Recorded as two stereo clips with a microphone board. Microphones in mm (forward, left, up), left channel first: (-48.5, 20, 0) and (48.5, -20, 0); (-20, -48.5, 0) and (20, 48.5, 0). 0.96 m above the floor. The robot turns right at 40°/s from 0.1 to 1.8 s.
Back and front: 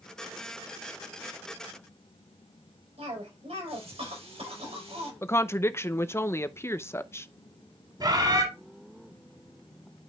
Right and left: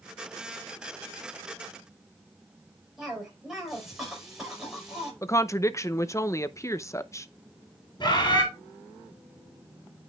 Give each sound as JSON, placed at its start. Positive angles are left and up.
{"t": 3.0, "sound": "a cough", "azimuth_deg": -20, "distance_m": 5.0}
{"t": 5.2, "sound": "a woman speaking", "azimuth_deg": -155, "distance_m": 0.6}
{"t": 8.0, "sound": "a bird", "azimuth_deg": -70, "distance_m": 3.5}